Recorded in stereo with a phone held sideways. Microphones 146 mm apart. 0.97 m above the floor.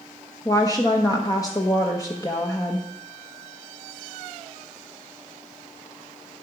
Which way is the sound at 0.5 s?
25° left (ahead or behind).